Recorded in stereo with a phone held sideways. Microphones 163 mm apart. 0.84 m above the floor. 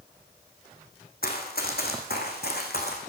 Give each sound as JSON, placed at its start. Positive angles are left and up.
{"t": 1.2, "sound": "running footsteps", "side_deg": 70, "distance_m": 3.0}